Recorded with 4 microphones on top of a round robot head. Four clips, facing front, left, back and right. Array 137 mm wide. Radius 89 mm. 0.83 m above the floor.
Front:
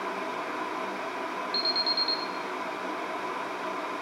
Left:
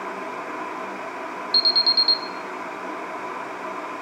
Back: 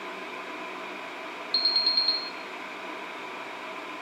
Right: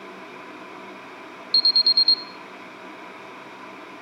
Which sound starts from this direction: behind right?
An alarm, at 1.5 s.